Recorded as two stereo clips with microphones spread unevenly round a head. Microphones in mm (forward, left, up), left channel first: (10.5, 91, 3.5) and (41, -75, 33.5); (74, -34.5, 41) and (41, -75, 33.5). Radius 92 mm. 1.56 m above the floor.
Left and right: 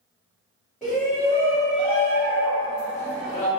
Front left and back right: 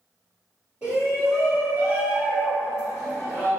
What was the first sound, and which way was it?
A shout, 175° right.